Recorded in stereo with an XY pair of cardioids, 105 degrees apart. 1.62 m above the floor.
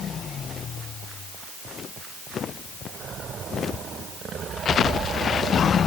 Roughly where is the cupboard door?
No cupboard door in this recording.